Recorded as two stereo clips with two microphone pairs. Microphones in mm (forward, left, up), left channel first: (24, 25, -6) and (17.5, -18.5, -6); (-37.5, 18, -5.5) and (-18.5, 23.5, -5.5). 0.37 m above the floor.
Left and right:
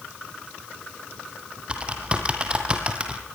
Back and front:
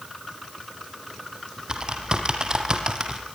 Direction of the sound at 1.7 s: 30° right.